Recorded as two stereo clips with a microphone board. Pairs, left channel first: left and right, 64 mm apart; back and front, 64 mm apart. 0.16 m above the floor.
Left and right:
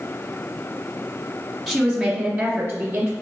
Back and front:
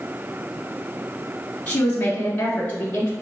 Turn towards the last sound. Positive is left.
turn(degrees=-120)